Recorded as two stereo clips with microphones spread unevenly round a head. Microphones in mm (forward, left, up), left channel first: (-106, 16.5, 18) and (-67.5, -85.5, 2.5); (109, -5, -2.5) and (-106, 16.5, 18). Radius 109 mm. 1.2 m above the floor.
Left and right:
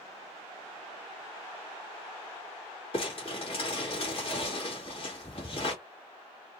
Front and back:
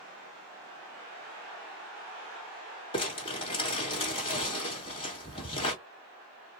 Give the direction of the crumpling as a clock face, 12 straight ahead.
10 o'clock.